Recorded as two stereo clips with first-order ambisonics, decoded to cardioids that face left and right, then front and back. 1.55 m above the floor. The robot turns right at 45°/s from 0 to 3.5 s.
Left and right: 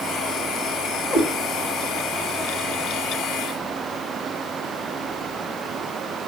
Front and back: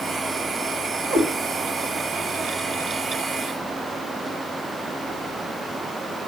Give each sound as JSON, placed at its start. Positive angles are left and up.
{"t": 1.1, "sound": "a cat meowing", "azimuth_deg": 130, "distance_m": 4.0}